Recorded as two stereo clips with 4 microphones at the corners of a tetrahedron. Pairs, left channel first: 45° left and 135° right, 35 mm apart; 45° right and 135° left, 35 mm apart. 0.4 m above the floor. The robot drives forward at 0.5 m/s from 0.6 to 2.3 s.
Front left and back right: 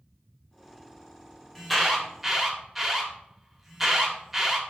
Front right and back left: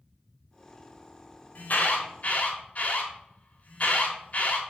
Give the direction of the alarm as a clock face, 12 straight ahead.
1 o'clock.